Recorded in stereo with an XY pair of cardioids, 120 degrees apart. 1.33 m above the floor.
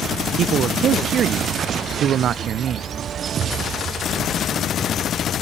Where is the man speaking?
55° right, 0.6 m.